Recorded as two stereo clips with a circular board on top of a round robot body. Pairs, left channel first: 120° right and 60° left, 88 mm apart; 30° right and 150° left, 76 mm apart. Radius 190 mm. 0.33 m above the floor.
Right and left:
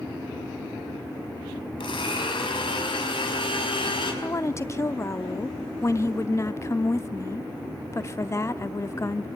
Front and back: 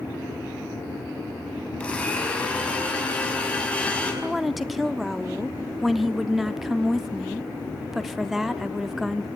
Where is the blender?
105° right, 5 m.